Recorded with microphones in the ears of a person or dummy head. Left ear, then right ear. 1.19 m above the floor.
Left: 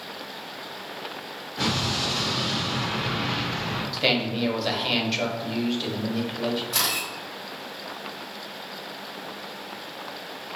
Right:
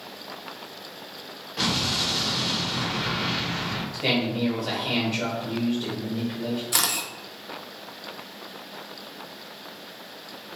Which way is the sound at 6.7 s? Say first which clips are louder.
Right 2 dB; 45° right (ahead or behind).